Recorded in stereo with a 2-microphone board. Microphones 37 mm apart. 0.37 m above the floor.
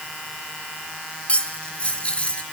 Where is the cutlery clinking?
30° left (ahead or behind), 2.5 m.